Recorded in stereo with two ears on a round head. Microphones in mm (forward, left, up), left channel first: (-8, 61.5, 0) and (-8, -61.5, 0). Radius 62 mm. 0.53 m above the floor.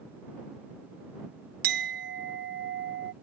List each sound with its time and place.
1.6 s a clink: 70° right (ahead or behind)